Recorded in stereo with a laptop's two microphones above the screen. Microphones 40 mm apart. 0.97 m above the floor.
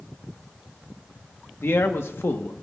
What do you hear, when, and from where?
1.6 s a man speaking: 75° left (ahead or behind), 1.1 m